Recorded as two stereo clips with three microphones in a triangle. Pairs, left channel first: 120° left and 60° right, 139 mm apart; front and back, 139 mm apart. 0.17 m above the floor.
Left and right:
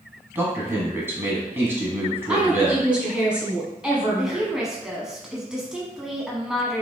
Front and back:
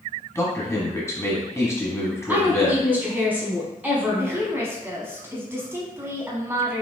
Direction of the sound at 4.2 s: 140° right.